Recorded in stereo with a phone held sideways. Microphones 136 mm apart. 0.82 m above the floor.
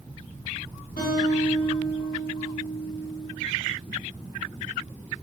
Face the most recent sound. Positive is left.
turn(degrees=65)  # may be behind; listen again after turning